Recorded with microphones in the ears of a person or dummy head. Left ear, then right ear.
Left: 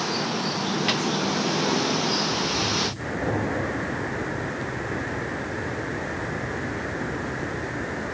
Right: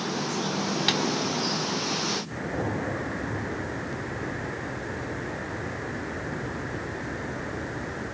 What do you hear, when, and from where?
0.9 s tapping: 30° right (ahead or behind), 2.5 m